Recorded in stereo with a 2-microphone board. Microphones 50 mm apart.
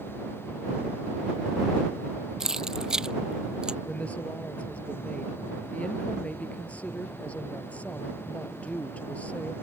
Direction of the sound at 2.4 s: 10° right (ahead or behind).